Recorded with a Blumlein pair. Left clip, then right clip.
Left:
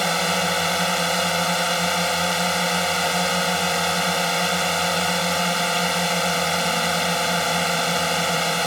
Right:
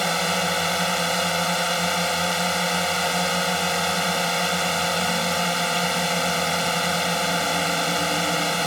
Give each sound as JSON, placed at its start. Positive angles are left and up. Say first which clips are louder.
{"t": 0.0, "sound": "a drone", "louder": "left 1 dB", "azimuth_deg": 5}